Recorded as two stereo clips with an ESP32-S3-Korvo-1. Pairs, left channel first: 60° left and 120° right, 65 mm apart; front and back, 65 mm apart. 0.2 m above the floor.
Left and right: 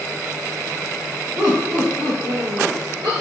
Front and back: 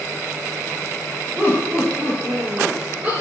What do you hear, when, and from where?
1.4 s laughter: 115° right, 2.5 m